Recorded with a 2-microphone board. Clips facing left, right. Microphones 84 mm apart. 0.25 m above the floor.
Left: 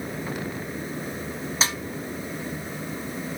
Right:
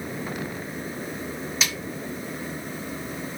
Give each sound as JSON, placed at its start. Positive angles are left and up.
{"t": 1.6, "sound": "a snare drum", "side_deg": 35, "distance_m": 0.7}